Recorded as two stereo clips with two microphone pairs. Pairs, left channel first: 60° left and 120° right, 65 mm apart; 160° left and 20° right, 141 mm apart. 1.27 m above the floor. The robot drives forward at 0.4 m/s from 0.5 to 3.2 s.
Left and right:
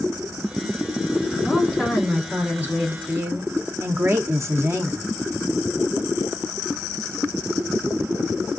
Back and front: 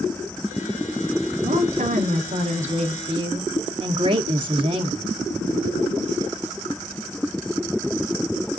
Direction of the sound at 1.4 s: 30° right.